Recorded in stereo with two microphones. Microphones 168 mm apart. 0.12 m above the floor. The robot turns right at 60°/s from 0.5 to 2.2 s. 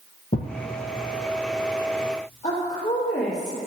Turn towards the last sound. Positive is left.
turn(degrees=40)  # may be behind; listen again after turning